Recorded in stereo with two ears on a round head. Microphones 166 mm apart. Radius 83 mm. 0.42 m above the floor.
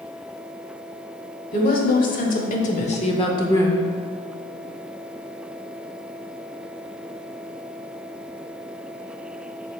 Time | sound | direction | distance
1.5 | a woman speaking | 45° left (ahead or behind) | 1.7 m